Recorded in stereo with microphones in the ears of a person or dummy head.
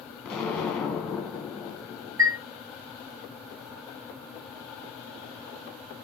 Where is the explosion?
Centre (ahead or behind), 1.0 m.